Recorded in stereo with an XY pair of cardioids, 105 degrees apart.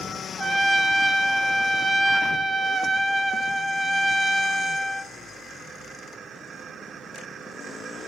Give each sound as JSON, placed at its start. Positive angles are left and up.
{"t": 0.4, "sound": "a trumpet", "azimuth_deg": -20, "distance_m": 1.4}